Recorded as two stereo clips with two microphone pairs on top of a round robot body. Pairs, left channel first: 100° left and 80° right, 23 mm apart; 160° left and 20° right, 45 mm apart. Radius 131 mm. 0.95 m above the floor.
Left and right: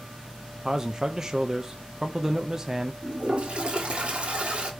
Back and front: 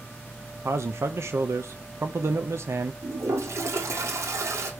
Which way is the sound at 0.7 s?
20° right.